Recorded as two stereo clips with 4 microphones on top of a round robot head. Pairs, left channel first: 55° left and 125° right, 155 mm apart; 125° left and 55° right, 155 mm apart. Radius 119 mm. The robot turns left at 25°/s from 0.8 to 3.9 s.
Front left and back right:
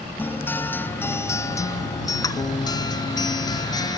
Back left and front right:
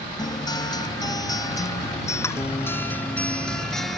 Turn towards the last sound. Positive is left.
turn(degrees=40)